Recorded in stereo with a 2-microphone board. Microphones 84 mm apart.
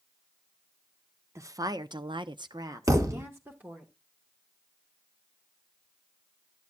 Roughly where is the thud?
Right.